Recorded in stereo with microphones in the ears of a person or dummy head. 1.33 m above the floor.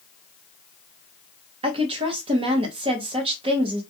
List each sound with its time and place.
1.6 s a woman speaking: 35° right (ahead or behind), 0.9 m